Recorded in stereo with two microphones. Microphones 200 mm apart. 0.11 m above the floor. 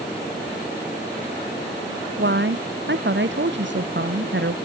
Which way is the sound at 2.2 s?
65° right (ahead or behind).